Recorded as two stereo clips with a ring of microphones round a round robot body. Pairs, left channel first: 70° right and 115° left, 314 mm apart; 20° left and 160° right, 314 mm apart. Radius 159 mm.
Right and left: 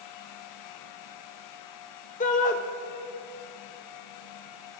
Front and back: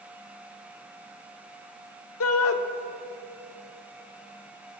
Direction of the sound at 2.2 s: 10° right.